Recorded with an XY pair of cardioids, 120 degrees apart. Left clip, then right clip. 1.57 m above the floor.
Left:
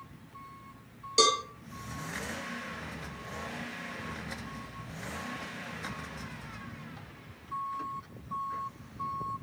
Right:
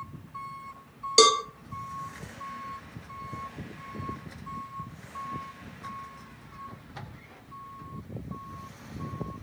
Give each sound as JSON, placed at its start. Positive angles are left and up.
{"t": 1.2, "sound": "a cowbell", "azimuth_deg": -45, "distance_m": 0.6}